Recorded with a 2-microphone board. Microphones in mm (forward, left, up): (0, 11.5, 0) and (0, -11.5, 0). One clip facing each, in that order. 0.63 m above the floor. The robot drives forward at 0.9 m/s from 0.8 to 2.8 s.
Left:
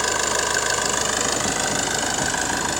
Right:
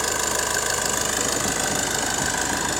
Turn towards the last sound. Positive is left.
turn(degrees=10)  # may be behind; listen again after turning